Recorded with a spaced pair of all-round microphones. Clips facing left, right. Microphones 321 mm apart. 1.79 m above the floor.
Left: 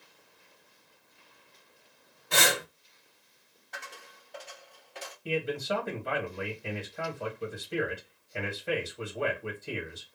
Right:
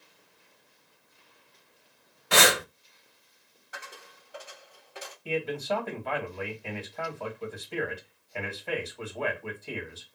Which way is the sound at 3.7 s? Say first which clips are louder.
Right 1 dB; 10° right (ahead or behind).